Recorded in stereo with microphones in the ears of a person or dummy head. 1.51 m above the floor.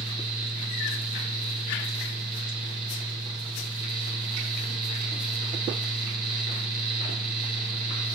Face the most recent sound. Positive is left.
turn(degrees=-45)  # may be behind; listen again after turning